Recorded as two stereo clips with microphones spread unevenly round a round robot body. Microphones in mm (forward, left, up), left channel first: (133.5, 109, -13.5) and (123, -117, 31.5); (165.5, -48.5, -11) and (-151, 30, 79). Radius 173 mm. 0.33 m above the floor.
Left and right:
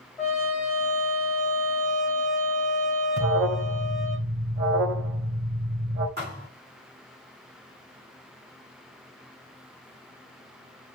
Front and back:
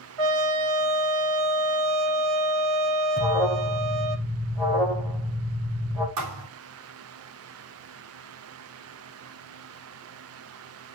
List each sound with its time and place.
0.2 s a trumpet: straight behind, 1.4 m
3.2 s an alarm: 80° right, 3 m
6.2 s a thud: 155° right, 3.5 m